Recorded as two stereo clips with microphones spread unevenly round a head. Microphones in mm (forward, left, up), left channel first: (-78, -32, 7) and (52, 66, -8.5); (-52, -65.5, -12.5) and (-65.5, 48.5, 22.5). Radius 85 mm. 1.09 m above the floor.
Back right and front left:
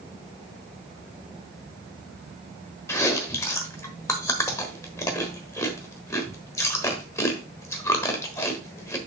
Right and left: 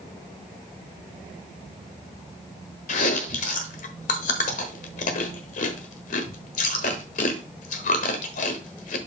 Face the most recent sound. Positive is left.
turn(degrees=-75)